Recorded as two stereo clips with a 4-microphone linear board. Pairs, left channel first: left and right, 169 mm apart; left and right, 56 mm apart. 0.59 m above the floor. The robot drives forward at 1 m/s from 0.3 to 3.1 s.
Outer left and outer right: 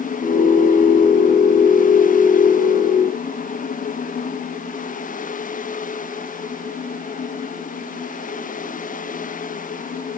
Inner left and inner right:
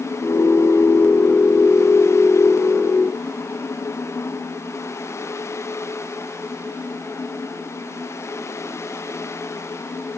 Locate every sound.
Only background noise.